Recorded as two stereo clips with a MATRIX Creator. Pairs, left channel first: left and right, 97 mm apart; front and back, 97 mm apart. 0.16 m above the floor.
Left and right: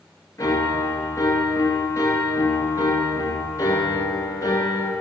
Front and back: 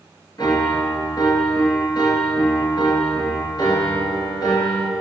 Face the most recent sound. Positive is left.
turn(degrees=40)